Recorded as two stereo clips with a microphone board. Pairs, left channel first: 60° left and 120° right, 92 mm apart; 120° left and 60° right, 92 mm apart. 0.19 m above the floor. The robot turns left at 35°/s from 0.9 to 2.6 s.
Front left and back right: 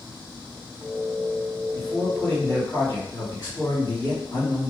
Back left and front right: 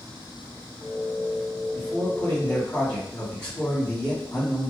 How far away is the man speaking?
About 1.7 m.